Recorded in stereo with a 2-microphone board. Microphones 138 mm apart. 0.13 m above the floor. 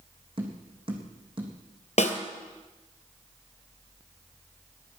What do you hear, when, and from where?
0.4 s tapping: 40° right (ahead or behind), 3.5 m
2.0 s a snare drum: 50° left (ahead or behind), 1.9 m